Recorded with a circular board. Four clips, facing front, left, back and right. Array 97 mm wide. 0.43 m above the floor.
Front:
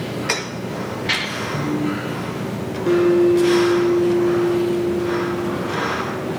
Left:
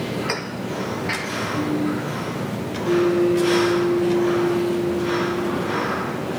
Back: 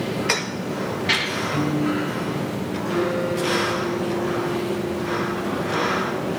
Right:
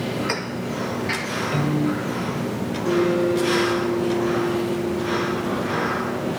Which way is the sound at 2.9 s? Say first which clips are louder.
Left 2 dB, front 10 dB; 10° right.